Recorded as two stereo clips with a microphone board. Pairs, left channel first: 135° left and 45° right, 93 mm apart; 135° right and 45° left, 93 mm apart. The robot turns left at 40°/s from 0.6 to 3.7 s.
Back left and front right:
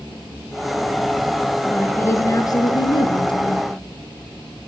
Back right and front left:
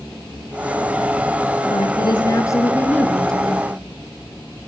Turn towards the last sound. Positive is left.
turn(degrees=125)